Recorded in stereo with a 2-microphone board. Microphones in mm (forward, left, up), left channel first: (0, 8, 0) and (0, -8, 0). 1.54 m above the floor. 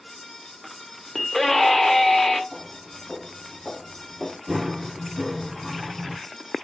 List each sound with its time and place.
1.1 s a scream: 20° left (ahead or behind), 0.7 m
2.5 s footsteps: 15° right (ahead or behind), 1.9 m; by 4.4 s 45° right (ahead or behind), 2 m
4.5 s running footsteps: 50° right (ahead or behind), 2.5 m; by 6.2 s 15° right (ahead or behind), 1.9 m